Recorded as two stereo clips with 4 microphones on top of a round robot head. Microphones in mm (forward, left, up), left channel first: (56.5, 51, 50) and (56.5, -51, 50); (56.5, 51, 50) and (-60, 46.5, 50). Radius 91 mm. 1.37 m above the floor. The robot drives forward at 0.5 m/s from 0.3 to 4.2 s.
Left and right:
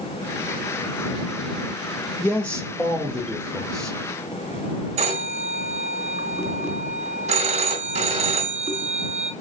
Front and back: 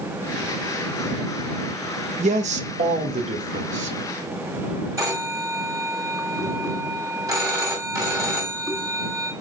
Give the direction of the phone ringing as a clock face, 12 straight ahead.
4 o'clock.